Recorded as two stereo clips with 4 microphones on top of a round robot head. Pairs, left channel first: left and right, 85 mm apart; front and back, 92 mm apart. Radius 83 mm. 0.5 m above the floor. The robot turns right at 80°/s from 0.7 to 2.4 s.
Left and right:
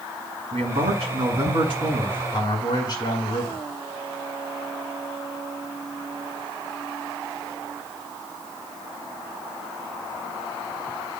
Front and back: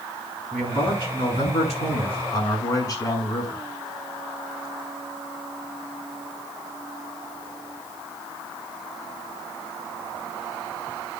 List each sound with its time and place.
0.5 s a man speaking: 90° right, 6 m; by 3.6 s 45° left, 6 m